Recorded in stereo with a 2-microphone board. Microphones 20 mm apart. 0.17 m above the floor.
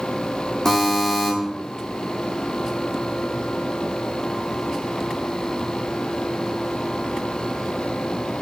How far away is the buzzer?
About 1.9 m.